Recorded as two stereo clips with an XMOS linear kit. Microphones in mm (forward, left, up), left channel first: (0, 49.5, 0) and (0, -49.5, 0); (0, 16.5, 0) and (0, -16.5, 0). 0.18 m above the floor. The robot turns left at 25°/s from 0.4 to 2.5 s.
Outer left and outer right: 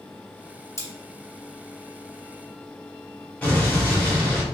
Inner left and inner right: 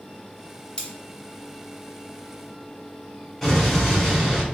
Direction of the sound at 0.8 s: 30° left (ahead or behind).